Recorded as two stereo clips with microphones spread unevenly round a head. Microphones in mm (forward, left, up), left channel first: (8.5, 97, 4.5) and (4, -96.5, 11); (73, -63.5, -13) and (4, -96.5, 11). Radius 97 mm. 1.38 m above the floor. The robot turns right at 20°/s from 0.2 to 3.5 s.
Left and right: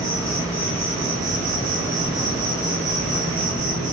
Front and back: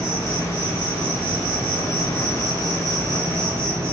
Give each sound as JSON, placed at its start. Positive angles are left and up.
{"t": 0.0, "sound": "an insect", "azimuth_deg": -160, "distance_m": 1.1}